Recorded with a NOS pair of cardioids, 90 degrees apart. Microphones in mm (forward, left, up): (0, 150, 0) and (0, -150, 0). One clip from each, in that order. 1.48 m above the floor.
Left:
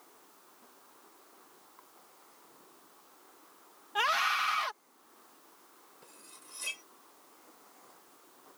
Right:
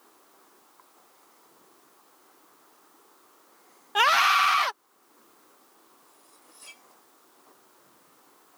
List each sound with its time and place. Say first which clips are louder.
4.0 s a scream: right 9 dB; 50° right
6.0 s cutlery clinking: left 2 dB; 60° left